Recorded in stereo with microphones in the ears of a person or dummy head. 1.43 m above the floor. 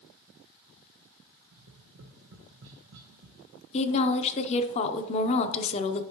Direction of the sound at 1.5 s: 60° right (ahead or behind).